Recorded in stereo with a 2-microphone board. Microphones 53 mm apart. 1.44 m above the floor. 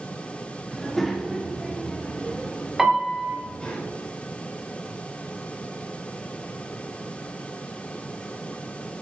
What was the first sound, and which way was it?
A child speaking, centre (ahead or behind).